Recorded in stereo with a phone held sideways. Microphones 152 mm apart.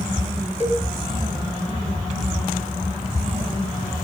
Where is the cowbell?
50° right (ahead or behind), 3 m.